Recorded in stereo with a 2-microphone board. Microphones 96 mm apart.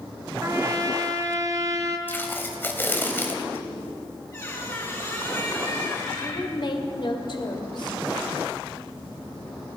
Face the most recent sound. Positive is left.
turn(degrees=55)  # may be behind; listen again after turning